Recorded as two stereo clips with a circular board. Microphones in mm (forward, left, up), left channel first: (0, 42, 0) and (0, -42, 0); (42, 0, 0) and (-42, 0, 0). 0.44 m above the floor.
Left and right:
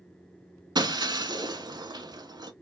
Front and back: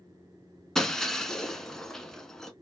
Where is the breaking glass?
80° right, 0.5 m.